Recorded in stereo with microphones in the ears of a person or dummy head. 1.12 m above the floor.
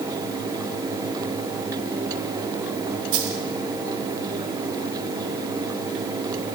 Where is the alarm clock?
No alarm clock in this recording.